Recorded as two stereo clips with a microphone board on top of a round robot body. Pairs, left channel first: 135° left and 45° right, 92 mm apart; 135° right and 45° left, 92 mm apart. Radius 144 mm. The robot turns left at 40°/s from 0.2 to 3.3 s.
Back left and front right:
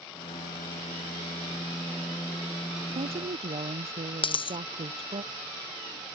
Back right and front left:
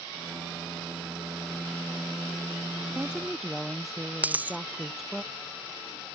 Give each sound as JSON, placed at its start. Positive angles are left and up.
{"t": 2.9, "sound": "a woman speaking", "azimuth_deg": -30}
{"t": 4.2, "sound": "a dropped coin", "azimuth_deg": 120}